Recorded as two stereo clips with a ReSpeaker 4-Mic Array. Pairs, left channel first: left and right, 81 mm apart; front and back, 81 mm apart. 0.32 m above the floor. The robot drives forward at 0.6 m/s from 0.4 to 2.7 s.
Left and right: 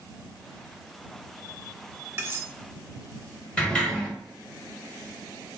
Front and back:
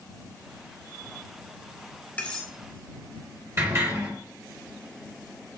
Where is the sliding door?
155° left, 1.2 m.